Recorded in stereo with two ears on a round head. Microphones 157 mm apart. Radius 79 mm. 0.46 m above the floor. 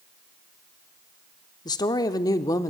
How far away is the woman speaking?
About 1.0 m.